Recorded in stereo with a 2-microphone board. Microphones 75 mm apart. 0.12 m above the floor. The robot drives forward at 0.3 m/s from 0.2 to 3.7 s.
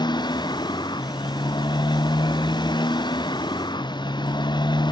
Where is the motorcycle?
75° left (ahead or behind); by 4.9 s 85° left.